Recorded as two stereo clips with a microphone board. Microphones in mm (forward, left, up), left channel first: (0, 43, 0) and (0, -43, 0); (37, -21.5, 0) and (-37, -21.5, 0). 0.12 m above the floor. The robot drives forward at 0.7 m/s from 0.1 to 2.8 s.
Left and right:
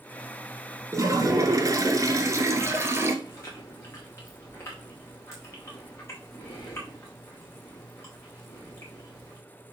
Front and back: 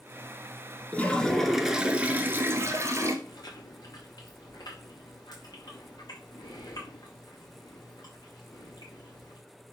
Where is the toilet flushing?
60° right, 1.2 m; by 3.1 s 140° right, 1.4 m.